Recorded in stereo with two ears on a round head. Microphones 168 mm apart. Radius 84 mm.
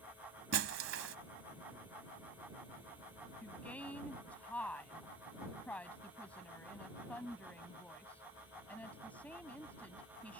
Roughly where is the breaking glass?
Right.